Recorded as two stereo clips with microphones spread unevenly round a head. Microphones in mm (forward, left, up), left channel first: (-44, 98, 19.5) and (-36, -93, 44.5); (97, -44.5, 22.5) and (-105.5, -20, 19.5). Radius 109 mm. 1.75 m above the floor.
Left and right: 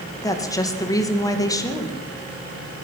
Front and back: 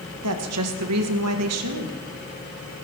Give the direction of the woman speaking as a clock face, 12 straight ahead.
6 o'clock.